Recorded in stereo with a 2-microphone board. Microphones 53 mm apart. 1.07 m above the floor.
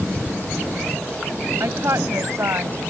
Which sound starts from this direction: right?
A woman speaking, at 1.6 s.